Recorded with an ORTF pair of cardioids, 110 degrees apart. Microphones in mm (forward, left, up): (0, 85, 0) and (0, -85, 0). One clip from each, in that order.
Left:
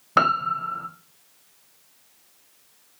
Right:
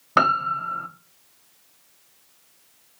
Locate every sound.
0.2 s a piano: 10° right, 1.1 m